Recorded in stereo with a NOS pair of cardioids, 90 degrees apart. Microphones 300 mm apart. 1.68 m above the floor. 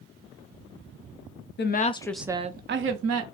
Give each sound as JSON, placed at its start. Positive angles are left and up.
{"t": 1.6, "sound": "a woman speaking", "azimuth_deg": 35, "distance_m": 0.7}